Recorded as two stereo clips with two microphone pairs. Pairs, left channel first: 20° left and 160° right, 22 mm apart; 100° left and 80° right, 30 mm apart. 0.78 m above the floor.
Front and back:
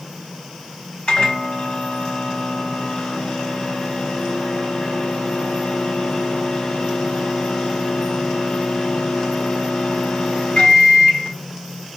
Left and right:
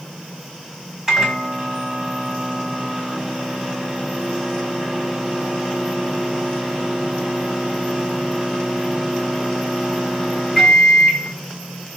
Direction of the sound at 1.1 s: 10° right.